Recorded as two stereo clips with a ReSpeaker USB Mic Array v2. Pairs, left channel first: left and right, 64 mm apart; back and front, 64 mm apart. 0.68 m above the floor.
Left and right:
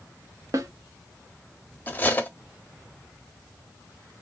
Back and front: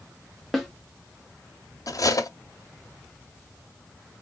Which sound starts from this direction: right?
A snare drum, at 0.5 s.